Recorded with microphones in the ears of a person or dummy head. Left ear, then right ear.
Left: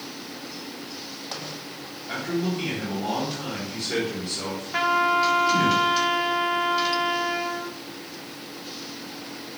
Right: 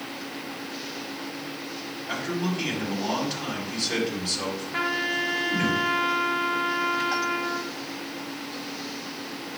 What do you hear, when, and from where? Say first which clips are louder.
2.1 s a man speaking: left 2 dB; 30° right (ahead or behind), 3.5 m
4.7 s a trumpet: left 6 dB; 20° left (ahead or behind), 1.0 m